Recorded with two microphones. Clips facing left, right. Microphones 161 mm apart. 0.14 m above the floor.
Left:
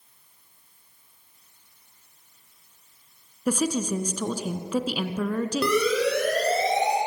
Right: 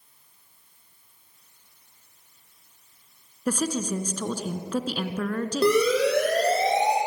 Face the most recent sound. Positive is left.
turn(degrees=-30)  # may be behind; listen again after turning